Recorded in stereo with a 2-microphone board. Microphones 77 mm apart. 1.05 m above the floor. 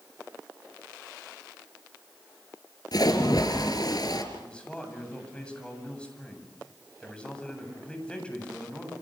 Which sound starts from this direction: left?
A splash, at 2.9 s.